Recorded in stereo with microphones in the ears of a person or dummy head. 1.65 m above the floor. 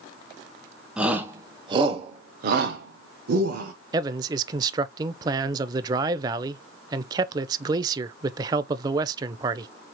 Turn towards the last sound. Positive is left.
turn(degrees=-25)  # may be behind; listen again after turning